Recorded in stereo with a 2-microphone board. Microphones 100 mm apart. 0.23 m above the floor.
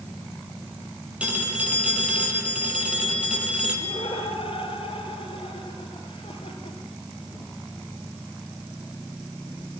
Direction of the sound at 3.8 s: 65° left (ahead or behind).